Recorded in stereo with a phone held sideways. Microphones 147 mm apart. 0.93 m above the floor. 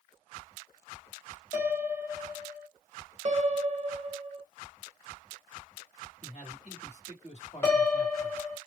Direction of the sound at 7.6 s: 15° left (ahead or behind).